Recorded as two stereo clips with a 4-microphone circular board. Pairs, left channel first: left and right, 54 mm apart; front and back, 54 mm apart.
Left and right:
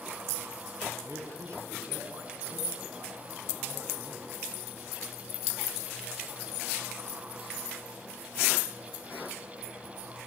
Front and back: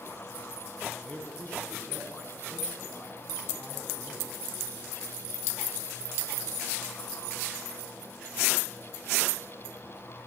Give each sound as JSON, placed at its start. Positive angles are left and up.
{"t": 1.1, "sound": "a man speaking", "azimuth_deg": -65, "distance_m": 6.0}